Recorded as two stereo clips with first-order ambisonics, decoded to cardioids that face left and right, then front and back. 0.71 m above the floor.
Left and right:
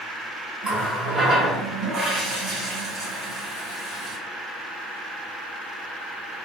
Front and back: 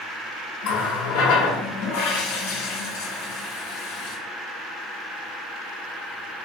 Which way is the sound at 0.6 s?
Straight ahead.